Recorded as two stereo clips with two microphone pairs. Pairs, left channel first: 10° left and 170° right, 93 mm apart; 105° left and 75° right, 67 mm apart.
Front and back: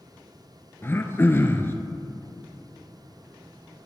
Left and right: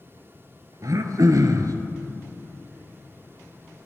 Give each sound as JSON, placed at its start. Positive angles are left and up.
{"t": 0.8, "sound": "throat clearing", "azimuth_deg": -55, "distance_m": 0.6}